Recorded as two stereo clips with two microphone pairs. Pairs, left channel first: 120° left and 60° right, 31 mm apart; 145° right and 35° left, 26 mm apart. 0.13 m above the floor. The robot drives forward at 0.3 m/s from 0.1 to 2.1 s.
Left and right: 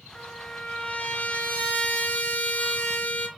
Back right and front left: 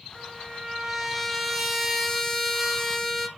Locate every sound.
0.1 s a trumpet: 105° left, 1.4 m; by 3.3 s 130° left, 1.6 m